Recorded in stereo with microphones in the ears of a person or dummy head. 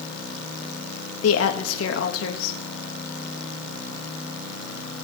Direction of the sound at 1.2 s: 75° left (ahead or behind).